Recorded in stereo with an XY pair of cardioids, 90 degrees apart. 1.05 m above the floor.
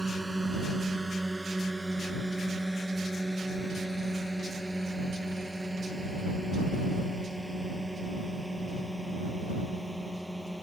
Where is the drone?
20° right; by 10.6 s straight ahead.